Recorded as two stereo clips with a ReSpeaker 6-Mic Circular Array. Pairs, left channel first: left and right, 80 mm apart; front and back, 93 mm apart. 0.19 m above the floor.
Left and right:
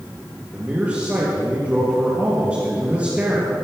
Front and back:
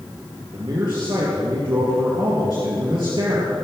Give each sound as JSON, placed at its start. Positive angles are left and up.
{"t": 0.5, "sound": "a man speaking", "azimuth_deg": -160, "distance_m": 3.0}